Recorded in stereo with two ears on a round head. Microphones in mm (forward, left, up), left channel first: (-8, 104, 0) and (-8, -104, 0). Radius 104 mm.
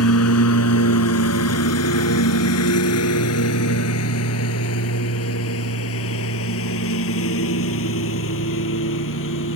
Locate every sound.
0.0 s a lawn mower: 70° left (ahead or behind); by 9.6 s 60° left (ahead or behind)